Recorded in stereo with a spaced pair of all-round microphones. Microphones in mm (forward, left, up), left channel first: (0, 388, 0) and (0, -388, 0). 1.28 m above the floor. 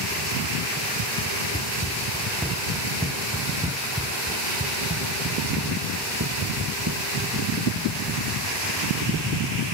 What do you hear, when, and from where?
1.5 s running footsteps: 10° left (ahead or behind); by 7.7 s 30° right (ahead or behind)